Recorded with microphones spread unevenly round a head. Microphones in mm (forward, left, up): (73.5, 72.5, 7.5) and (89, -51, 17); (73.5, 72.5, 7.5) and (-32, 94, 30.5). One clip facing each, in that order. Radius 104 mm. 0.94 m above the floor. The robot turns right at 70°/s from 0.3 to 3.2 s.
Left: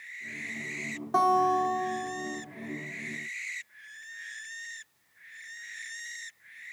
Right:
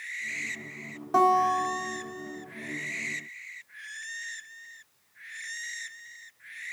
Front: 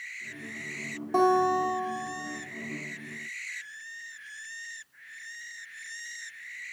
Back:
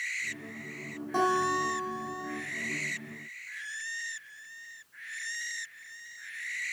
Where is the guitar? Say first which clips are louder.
Right 1 dB, front 5 dB; 5° left, 2.5 m; by 2.4 s 95° left, 2.5 m.